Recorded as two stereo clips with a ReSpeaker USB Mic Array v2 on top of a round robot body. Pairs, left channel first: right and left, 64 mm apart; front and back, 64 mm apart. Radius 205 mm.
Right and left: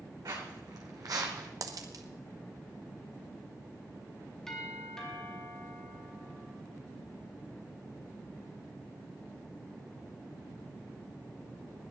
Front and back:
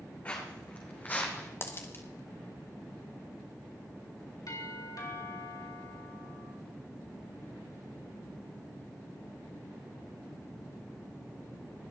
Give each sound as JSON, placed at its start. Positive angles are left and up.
{"t": 0.2, "sound": "footsteps", "azimuth_deg": 65, "distance_m": 3.0}
{"t": 1.6, "sound": "a dropped coin", "azimuth_deg": 55, "distance_m": 0.8}
{"t": 4.5, "sound": "a doorbell", "azimuth_deg": -10, "distance_m": 4.0}